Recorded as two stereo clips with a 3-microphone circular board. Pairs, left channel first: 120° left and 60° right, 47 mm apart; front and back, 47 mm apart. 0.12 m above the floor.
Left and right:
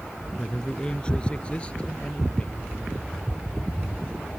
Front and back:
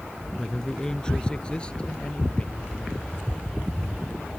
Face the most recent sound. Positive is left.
turn(degrees=60)